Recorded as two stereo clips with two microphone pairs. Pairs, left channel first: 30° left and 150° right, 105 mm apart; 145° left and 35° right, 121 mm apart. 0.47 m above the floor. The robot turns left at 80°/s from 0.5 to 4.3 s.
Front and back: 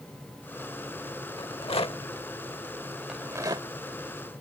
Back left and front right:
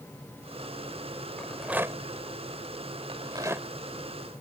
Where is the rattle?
70° left; by 4.4 s 165° right.